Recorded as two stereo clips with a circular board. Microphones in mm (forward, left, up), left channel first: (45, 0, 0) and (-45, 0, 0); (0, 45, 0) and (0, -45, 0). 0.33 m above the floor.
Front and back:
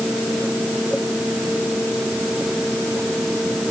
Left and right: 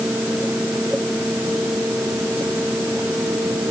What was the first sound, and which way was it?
Only background noise.